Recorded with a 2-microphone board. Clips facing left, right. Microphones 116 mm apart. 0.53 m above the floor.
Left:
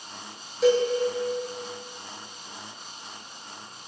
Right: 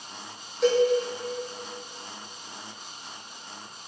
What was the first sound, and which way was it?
A cowbell, centre (ahead or behind).